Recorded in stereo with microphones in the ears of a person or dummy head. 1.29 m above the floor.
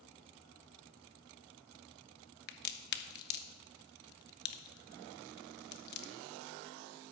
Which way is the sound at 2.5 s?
50° left (ahead or behind).